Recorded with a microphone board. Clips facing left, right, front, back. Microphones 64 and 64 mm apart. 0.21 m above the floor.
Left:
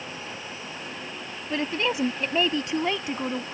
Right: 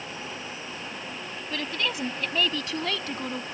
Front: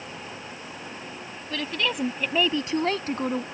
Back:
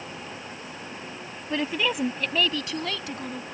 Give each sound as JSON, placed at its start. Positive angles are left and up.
{"t": 1.5, "sound": "a woman speaking", "azimuth_deg": 130}